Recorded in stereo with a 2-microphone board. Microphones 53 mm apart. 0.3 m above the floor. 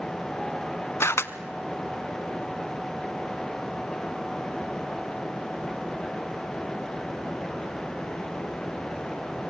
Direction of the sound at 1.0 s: 55° left (ahead or behind).